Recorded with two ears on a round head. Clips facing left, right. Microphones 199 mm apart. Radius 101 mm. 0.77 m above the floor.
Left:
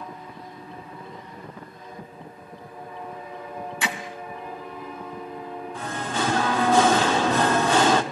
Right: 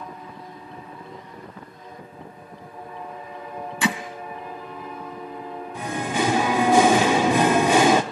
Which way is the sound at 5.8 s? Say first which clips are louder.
Right 4 dB; 10° right (ahead or behind).